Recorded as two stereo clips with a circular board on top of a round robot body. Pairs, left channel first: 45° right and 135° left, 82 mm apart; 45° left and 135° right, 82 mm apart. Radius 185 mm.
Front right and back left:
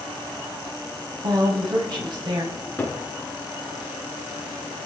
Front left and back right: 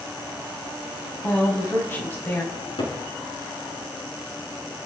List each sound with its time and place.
1.2 s a woman speaking: 110° left, 3.5 m
2.5 s a cupboard door: 25° left, 5 m